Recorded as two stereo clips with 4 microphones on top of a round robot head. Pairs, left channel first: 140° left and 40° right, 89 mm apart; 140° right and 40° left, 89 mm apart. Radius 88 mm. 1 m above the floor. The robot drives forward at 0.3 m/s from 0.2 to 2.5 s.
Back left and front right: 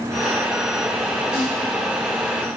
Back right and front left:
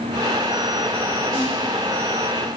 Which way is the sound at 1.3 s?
165° right.